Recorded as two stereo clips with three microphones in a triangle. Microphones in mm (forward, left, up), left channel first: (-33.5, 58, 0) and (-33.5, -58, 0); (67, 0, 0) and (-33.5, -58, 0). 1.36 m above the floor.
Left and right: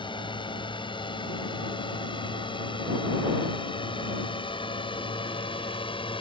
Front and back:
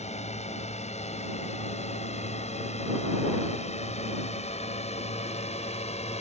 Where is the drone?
45° left; by 6.2 s 50° left.